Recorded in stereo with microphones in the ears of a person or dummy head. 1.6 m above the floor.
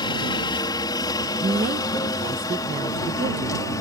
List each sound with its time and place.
0.0 s a helicopter: 20° left (ahead or behind); by 3.8 s 15° left (ahead or behind)
1.4 s a woman speaking: 25° right (ahead or behind)